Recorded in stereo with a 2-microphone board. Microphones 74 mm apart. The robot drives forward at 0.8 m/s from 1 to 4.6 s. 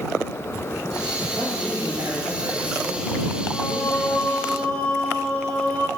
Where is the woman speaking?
55° right (ahead or behind), 3.5 m; by 4.5 s 75° right (ahead or behind), 3 m.